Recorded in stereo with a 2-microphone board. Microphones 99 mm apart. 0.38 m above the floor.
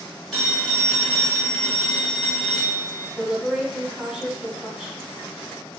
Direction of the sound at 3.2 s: 5° right (ahead or behind).